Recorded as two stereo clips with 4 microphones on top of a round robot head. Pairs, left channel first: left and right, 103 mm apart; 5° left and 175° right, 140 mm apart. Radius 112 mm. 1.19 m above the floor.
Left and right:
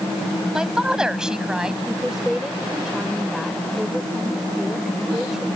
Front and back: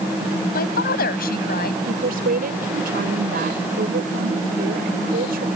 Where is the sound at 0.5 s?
5° right.